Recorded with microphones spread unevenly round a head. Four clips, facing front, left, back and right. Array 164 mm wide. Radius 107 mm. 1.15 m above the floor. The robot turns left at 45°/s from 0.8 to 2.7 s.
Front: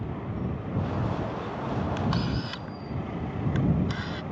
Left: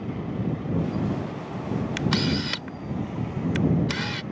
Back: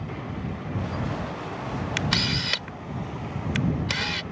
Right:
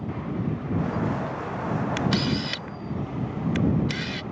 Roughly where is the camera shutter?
Behind left.